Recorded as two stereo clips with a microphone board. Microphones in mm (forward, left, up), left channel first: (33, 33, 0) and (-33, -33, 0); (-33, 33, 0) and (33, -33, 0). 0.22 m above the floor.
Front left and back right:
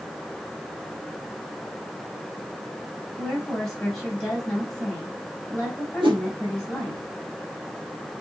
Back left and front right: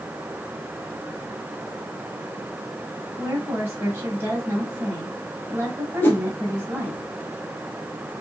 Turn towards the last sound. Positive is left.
turn(degrees=-160)